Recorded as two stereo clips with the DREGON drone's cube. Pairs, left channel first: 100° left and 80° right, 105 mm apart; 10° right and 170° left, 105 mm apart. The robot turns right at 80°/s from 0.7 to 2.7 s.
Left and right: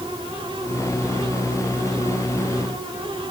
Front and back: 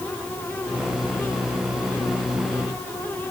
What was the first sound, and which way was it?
Only background noise.